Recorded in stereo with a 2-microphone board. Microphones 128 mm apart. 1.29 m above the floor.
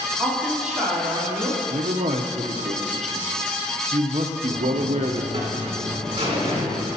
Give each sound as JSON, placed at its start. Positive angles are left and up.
{"t": 0.2, "sound": "a woman speaking", "side_deg": 5, "distance_m": 3.0}
{"t": 1.7, "sound": "a man speaking", "side_deg": -60, "distance_m": 0.7}
{"t": 4.5, "sound": "a buzzer", "side_deg": -45, "distance_m": 2.5}